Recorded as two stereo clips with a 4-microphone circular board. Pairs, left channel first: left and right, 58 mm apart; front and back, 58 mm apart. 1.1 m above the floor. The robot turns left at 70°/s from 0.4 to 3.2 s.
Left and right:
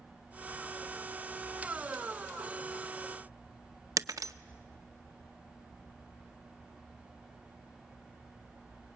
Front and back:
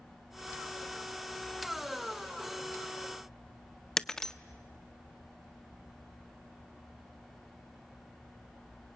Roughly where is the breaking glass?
Right.